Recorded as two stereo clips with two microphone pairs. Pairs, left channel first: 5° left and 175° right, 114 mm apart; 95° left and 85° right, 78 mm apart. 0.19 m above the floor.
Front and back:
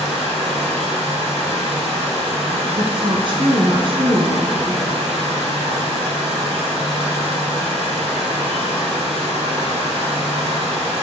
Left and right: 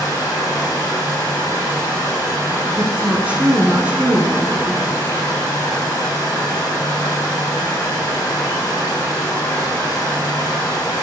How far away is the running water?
About 5 m.